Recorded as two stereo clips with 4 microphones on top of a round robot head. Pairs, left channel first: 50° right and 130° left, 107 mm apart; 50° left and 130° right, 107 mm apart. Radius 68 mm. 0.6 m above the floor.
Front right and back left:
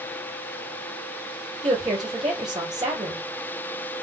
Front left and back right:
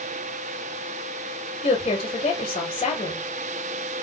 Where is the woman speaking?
80° left, 2 m.